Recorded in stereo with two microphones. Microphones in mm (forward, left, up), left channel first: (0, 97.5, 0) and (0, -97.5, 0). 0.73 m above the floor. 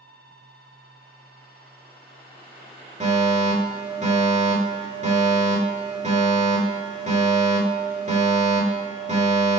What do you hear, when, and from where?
3.0 s a fire alarm: 35° right (ahead or behind), 3.5 m